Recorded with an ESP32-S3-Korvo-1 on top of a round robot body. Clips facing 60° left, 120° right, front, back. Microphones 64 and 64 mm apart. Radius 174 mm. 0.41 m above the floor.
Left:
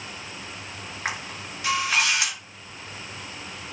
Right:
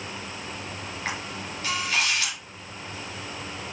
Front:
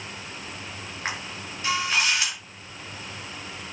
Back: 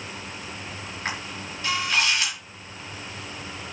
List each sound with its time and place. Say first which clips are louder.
1.1 s a camera shutter: left 2 dB, even; 70° left, 5.5 m